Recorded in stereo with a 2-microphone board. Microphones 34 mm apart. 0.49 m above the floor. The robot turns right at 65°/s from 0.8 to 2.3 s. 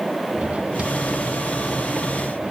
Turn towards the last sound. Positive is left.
turn(degrees=-45)  # may be behind; listen again after turning